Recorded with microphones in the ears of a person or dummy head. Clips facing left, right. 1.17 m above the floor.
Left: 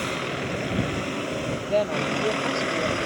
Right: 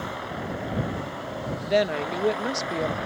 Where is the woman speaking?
20° right (ahead or behind).